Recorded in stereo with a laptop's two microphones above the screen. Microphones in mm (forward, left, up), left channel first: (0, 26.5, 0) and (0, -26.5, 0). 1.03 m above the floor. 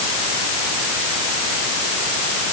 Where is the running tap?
No running tap in this recording.